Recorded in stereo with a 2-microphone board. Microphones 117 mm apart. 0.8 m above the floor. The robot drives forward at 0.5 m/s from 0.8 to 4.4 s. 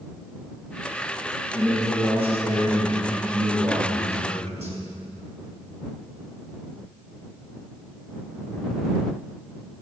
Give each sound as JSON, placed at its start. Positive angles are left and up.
{"t": 1.5, "sound": "a man speaking", "side_deg": -55, "distance_m": 6.5}